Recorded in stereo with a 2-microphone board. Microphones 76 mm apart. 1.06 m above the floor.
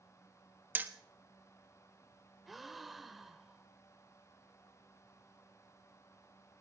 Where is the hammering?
25° right (ahead or behind), 1.3 m.